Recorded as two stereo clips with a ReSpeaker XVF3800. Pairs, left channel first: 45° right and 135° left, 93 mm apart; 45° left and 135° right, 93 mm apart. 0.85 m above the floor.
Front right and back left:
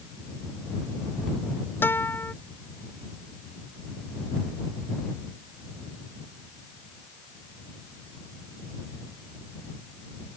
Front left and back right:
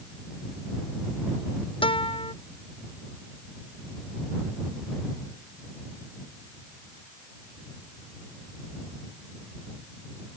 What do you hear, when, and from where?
1.8 s a guitar: 20° left